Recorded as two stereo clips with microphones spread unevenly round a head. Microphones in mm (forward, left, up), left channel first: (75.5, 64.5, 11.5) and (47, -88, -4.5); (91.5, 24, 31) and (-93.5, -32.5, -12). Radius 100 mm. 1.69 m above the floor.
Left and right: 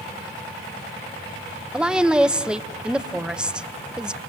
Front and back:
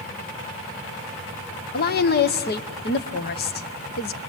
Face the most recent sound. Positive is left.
turn(degrees=-15)